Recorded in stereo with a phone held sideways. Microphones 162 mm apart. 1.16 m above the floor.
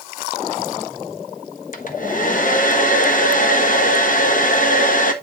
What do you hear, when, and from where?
1.7 s a hair dryer: 55° left (ahead or behind), 1.3 m